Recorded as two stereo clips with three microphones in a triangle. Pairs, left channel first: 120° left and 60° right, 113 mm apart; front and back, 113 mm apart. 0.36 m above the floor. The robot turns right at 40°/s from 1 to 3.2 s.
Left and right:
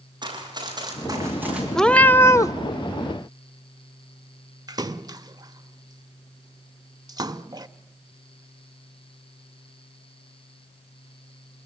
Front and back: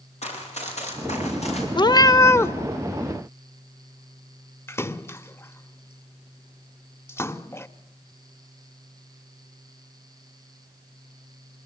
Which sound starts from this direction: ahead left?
A cat meowing, at 1.8 s.